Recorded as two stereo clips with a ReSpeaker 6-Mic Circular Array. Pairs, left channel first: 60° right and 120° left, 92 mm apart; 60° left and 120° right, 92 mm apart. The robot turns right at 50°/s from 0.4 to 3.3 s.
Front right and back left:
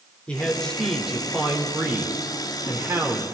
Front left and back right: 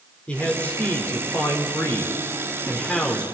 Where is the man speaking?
Straight ahead, 1.4 m; by 3.2 s 145° left, 1.4 m.